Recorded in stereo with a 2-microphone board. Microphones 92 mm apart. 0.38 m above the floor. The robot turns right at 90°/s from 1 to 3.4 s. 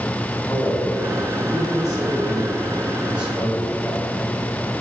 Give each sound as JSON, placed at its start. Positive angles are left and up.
{"t": 0.5, "sound": "a man speaking", "azimuth_deg": 150, "distance_m": 2.5}